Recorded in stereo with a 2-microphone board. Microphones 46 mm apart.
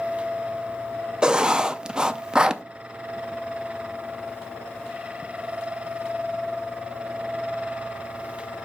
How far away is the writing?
About 0.5 m.